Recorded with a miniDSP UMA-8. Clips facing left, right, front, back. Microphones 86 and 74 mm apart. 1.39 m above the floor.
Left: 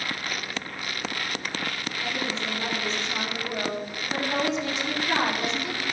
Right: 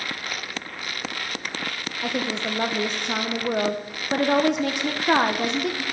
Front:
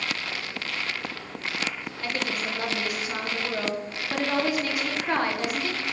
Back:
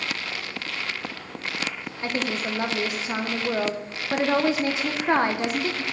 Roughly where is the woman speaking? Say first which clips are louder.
Right 5 dB, back 3 dB; behind right.